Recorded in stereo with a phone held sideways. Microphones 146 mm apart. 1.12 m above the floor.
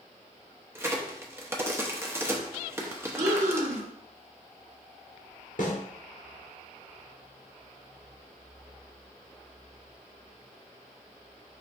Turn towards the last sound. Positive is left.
turn(degrees=60)  # may be behind; listen again after turning